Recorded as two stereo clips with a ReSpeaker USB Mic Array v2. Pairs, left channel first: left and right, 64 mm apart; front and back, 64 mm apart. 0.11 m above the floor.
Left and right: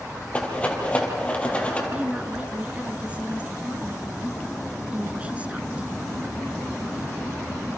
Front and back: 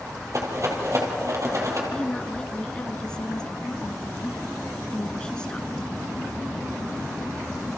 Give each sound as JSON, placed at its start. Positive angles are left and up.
{"t": 0.3, "sound": "a rattle", "azimuth_deg": 155, "distance_m": 3.5}
{"t": 1.9, "sound": "a woman speaking", "azimuth_deg": -55, "distance_m": 1.1}